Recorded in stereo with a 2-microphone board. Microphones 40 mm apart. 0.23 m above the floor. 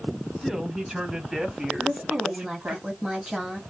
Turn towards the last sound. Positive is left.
turn(degrees=-15)  # may be behind; listen again after turning